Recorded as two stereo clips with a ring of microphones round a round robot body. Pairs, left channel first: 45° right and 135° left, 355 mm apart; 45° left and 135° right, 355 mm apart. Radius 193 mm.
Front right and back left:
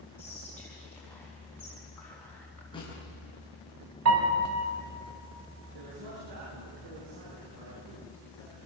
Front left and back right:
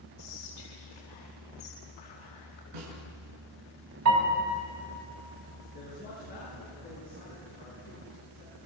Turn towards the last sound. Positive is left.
turn(degrees=110)